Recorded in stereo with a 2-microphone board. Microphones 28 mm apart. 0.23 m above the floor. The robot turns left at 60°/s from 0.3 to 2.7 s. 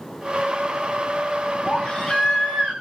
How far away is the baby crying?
About 8.5 m.